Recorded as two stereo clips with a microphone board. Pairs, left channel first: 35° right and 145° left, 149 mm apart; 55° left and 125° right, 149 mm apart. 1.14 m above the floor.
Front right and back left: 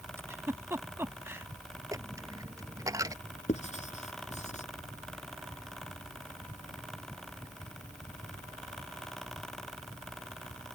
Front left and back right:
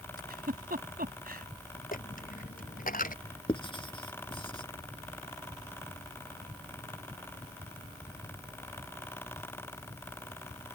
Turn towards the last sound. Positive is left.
turn(degrees=0)